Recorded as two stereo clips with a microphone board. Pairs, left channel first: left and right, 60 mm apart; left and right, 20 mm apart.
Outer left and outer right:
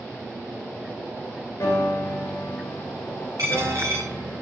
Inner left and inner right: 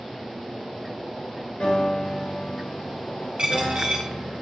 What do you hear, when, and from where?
1.6 s a piano: 60° left (ahead or behind), 5.5 m
3.4 s a dropped coin: 70° right (ahead or behind), 5.5 m